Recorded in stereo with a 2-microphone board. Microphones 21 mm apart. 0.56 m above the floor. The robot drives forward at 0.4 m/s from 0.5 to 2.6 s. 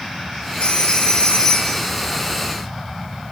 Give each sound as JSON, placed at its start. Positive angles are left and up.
{"t": 0.6, "sound": "a phone ringing", "side_deg": 80, "distance_m": 5.0}